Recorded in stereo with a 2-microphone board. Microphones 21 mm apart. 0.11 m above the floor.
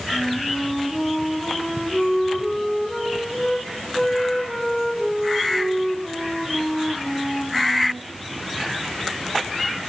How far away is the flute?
About 5.5 m.